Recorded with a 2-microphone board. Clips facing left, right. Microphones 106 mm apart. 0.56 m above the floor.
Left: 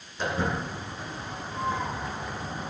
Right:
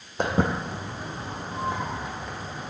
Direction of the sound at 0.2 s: 55° right (ahead or behind).